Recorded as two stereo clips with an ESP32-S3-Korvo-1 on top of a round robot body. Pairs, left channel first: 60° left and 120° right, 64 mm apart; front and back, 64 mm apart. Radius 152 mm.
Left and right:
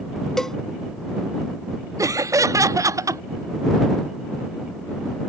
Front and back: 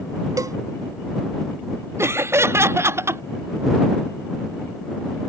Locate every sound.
0.4 s a cowbell: 145° left
2.0 s laughter: 140° right